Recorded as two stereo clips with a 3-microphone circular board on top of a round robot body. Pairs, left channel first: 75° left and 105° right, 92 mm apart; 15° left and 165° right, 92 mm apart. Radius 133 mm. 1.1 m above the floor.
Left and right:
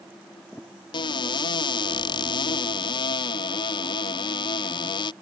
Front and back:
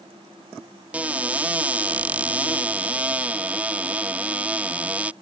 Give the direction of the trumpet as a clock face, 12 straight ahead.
I don't hear a trumpet.